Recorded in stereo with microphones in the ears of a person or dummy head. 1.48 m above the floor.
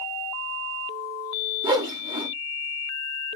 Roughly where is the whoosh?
Centre.